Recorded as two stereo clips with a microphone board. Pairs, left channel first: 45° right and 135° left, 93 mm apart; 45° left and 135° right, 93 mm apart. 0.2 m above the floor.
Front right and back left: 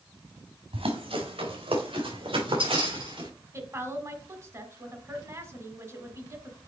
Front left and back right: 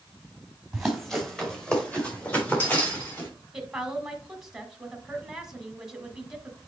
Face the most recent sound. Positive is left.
turn(degrees=145)